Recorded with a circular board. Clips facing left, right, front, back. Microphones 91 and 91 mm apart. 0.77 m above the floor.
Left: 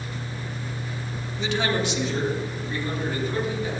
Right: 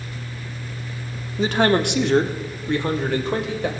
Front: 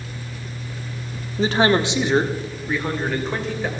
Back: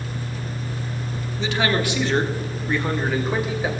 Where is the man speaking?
45° right, 1.3 m; by 3.7 s 100° right, 3 m.